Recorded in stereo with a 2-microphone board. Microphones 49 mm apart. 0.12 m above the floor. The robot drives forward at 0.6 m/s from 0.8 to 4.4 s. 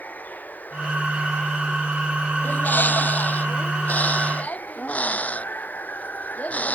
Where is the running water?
35° left (ahead or behind); by 6.7 s 40° left (ahead or behind).